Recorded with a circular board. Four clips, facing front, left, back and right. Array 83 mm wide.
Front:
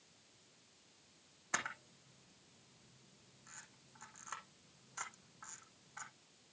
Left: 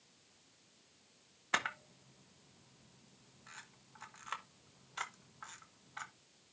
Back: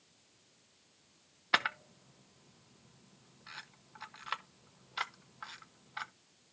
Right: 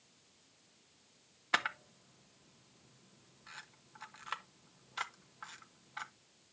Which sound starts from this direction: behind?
A camera shutter, at 1.5 s.